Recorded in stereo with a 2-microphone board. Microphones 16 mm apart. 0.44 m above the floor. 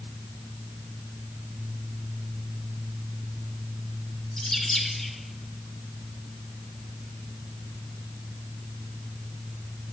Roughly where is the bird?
Left.